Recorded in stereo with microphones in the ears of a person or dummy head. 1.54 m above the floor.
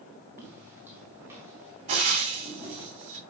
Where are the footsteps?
10° right (ahead or behind), 3 m.